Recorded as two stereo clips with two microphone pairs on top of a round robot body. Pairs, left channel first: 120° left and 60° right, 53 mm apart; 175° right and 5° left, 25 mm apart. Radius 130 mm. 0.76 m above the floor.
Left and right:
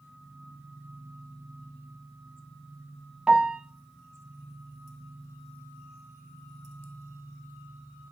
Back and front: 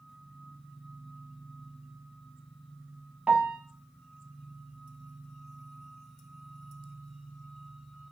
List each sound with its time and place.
3.3 s a piano: 10° left, 0.6 m